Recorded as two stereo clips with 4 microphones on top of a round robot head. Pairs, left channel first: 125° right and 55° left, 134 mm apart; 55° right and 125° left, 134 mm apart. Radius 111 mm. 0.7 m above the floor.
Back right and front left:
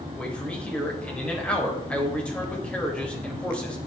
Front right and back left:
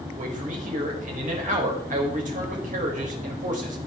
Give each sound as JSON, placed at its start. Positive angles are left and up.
{"t": 0.2, "sound": "a man speaking", "azimuth_deg": 150, "distance_m": 4.0}